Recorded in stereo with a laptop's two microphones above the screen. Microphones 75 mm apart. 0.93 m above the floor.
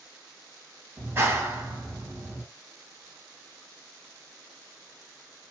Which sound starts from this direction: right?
A clap, at 1.0 s.